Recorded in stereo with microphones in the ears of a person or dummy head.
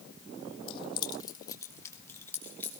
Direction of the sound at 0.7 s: 30° left (ahead or behind).